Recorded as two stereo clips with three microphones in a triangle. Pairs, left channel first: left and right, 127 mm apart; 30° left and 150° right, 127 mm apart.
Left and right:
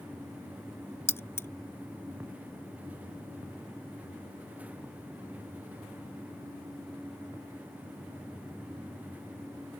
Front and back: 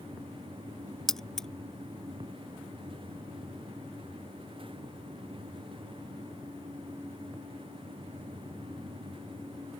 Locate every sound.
1.1 s keys jangling: 110° left